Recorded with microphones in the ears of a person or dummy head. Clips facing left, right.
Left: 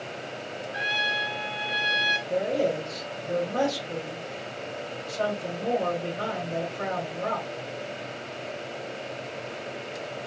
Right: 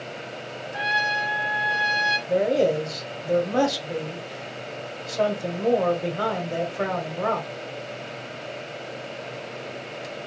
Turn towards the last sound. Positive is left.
turn(degrees=-70)  # may be behind; listen again after turning